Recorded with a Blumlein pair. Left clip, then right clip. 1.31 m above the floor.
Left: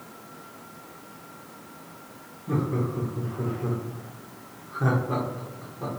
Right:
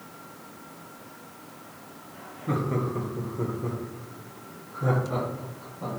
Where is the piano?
I don't hear a piano.